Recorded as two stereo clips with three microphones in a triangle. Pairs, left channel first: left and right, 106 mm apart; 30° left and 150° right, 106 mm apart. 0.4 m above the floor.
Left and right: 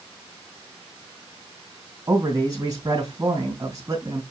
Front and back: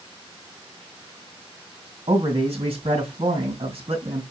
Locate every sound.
2.1 s a man speaking: 145° right, 2.5 m